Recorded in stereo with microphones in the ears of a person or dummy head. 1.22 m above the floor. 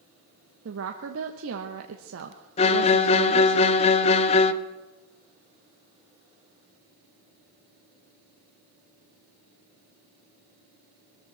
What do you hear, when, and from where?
0.7 s a woman speaking: 80° right, 1.1 m
2.6 s a violin: 30° left (ahead or behind), 0.6 m